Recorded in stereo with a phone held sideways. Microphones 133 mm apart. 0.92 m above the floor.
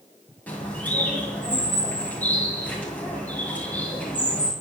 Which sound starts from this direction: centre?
A bird, at 0.5 s.